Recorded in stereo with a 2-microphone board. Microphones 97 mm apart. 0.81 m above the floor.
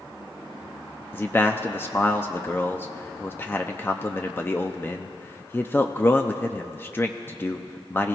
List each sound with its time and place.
1.1 s a man speaking: 20° left (ahead or behind), 0.6 m